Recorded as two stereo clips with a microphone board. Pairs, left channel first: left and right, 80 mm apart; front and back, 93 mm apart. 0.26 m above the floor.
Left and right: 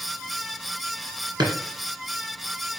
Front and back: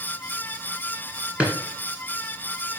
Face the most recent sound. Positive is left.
turn(degrees=-105)